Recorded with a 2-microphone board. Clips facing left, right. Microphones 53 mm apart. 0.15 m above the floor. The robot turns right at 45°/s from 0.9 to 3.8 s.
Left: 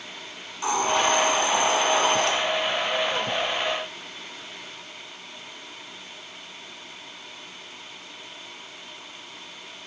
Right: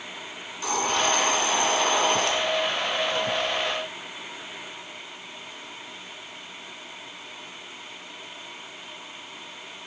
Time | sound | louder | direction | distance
0.6 | a hiss | left 2 dB | 25° left (ahead or behind) | 1.5 m